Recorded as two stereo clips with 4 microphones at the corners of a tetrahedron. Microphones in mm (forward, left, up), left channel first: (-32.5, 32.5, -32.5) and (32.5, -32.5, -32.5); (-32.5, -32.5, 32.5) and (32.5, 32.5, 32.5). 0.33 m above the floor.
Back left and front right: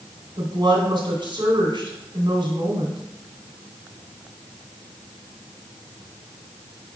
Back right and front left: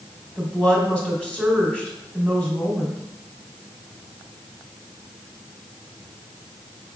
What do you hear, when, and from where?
0.4 s a woman speaking: 60° right, 2.5 m